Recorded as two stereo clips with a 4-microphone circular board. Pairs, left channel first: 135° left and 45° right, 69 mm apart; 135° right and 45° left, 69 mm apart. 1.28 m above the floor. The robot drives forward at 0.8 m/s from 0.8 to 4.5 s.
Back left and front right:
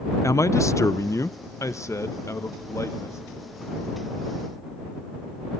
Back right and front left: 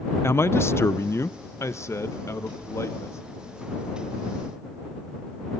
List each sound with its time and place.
0.2 s a man speaking: 175° left, 0.6 m; by 3.2 s straight behind, 2.5 m